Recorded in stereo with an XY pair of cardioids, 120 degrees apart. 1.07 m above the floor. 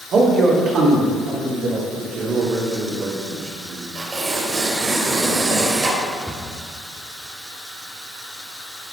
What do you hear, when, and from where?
0.1 s a man speaking: 55° right, 2 m
2.0 s a man speaking: 60° right, 2.5 m
4.0 s tearing paper: 35° right, 3 m
6.3 s a cupboard door: straight ahead, 1.3 m